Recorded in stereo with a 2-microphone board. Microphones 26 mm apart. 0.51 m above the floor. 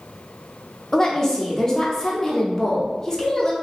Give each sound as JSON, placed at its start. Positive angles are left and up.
{"t": 0.9, "sound": "a woman speaking", "side_deg": 20, "distance_m": 0.7}